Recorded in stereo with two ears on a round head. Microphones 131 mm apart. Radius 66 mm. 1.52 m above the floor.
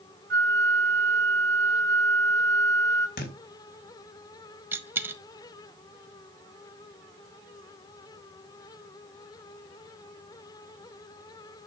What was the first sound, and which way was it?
A flute, 80° right.